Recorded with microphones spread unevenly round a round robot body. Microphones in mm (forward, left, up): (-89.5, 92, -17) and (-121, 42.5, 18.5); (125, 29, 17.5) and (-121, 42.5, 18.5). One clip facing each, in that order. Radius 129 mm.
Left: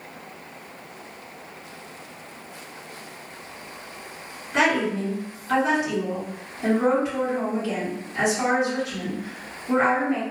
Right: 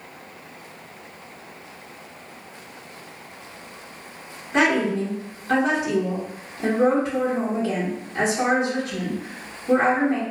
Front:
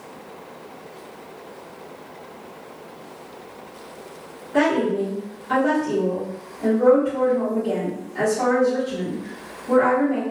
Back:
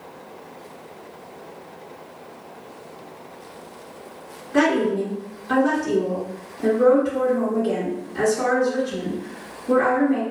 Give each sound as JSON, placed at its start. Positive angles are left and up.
{"t": 4.5, "sound": "a woman speaking", "azimuth_deg": 175, "distance_m": 1.0}